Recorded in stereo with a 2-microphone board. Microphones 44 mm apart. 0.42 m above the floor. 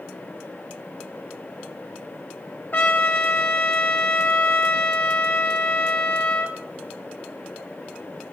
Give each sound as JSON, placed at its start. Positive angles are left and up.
{"t": 2.7, "sound": "a trumpet", "side_deg": 45, "distance_m": 0.7}